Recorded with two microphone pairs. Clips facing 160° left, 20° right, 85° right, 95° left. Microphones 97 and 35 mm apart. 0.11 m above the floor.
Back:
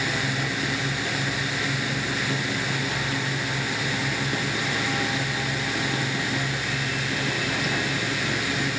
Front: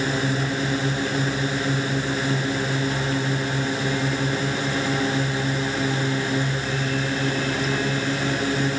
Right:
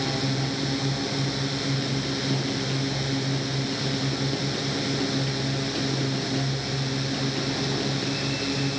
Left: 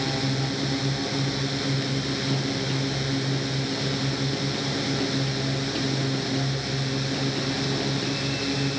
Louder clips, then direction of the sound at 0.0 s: Front 4 dB, even; 15° left.